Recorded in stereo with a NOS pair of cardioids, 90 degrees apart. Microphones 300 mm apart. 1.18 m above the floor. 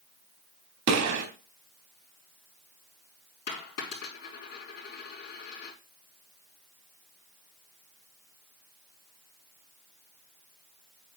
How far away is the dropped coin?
About 4.5 m.